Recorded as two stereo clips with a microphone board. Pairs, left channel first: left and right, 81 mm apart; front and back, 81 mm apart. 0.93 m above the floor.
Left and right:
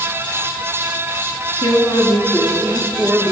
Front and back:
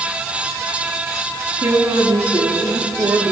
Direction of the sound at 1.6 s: 130° left.